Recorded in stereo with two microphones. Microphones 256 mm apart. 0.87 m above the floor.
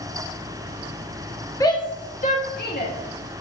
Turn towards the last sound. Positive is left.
turn(degrees=40)  # may be behind; listen again after turning